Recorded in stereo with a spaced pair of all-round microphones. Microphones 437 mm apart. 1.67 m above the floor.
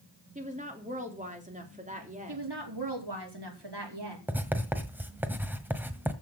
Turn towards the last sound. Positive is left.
turn(degrees=-5)  # may be behind; listen again after turning